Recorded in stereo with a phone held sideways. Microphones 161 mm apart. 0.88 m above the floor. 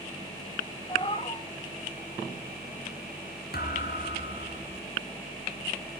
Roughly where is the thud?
Left.